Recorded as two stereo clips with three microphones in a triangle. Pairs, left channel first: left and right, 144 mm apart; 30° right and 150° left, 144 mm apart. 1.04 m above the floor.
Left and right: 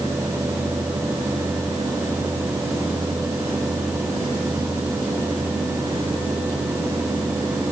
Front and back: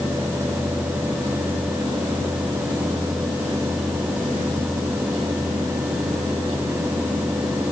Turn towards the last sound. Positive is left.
No sound to turn to.